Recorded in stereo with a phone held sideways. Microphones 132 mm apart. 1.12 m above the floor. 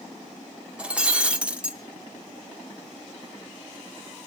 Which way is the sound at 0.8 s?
10° right (ahead or behind).